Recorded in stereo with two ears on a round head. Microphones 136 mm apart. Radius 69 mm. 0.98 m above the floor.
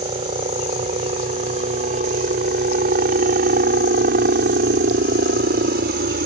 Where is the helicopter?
35° right (ahead or behind); by 6.3 s 60° right (ahead or behind).